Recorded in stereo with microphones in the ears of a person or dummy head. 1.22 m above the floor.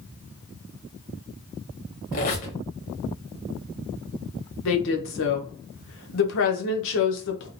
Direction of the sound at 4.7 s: 70° left (ahead or behind).